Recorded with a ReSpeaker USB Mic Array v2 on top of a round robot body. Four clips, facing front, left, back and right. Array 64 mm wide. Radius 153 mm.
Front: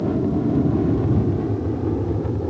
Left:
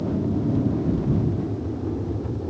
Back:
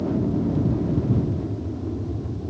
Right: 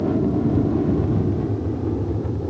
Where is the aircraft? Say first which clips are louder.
Right 4 dB, front 3 dB; 55° right; by 2.5 s 10° right.